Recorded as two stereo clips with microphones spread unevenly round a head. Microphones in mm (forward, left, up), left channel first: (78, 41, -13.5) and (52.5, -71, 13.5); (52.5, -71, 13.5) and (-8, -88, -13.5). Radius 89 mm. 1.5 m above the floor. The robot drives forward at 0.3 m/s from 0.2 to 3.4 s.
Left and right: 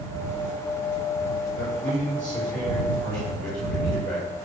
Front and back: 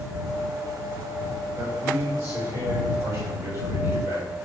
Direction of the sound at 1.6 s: 135° right.